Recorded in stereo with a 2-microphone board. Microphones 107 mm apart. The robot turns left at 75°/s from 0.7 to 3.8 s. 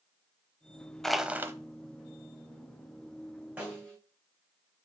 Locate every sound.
1.0 s crushing: 5° left, 0.9 m; by 1.5 s 30° right, 0.9 m
3.6 s a snare drum: 10° right (ahead or behind), 4.5 m; by 4.0 s 5° left (ahead or behind), 4.5 m